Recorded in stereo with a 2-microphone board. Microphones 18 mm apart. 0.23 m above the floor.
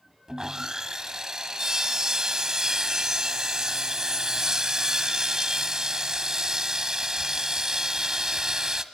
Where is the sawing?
30° right (ahead or behind), 1.2 m.